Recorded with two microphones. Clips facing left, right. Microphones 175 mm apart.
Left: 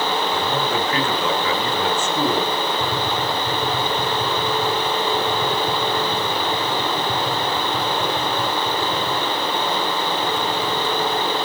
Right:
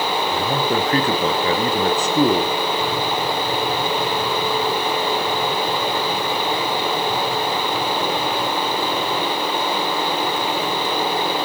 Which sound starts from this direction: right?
A man speaking, at 0.3 s.